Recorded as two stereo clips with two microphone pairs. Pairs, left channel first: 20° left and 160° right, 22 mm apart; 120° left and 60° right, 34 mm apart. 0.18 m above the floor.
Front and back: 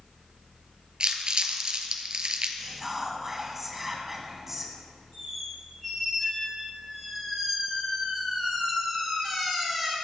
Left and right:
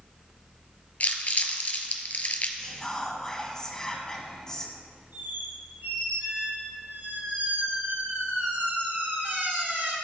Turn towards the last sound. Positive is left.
turn(degrees=-50)